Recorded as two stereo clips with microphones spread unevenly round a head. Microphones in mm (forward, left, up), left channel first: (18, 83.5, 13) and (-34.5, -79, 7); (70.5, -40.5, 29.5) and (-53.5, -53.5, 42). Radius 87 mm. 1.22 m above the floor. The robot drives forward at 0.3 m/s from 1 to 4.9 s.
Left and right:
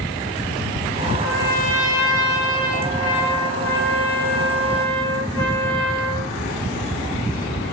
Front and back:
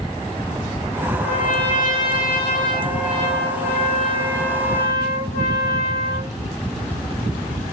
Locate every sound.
1.2 s a trumpet: 5° right, 8.5 m